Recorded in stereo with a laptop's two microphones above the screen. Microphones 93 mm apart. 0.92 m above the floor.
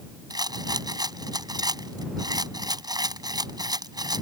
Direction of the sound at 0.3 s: 45° right (ahead or behind).